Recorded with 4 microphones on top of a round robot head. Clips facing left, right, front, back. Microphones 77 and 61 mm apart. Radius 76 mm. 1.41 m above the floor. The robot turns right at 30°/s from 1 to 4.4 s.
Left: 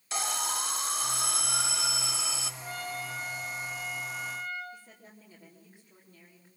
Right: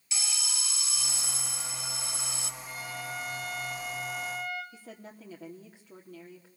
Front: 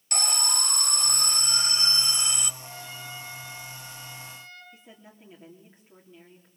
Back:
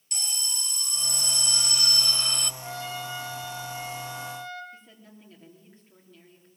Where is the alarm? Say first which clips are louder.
Left 9 dB, front 8 dB; 40° left, 0.9 m; by 2.5 s 85° left, 0.9 m.